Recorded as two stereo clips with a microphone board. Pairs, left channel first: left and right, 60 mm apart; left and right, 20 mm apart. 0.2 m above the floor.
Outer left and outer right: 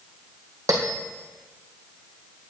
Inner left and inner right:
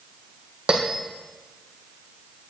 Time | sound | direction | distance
0.7 | a bell | 65° right (ahead or behind) | 1.9 m